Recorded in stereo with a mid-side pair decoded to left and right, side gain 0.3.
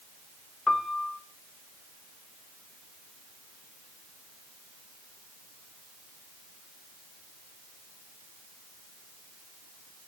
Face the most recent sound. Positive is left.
turn(degrees=40)